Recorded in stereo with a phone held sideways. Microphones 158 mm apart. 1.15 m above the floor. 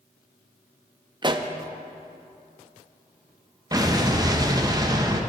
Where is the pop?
30° right (ahead or behind), 0.6 m.